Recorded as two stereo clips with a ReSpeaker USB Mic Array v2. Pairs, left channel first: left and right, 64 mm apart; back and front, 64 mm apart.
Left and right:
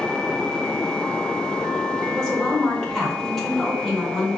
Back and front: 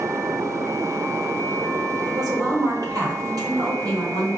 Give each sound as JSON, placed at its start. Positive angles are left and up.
{"t": 2.1, "sound": "a woman speaking", "azimuth_deg": 5, "distance_m": 1.6}